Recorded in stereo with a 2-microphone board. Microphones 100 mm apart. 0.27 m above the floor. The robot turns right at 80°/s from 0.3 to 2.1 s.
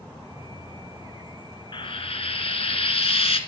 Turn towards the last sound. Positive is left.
turn(degrees=85)